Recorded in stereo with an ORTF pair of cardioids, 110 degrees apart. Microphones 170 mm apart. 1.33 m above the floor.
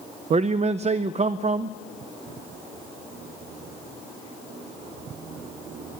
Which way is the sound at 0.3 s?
40° right.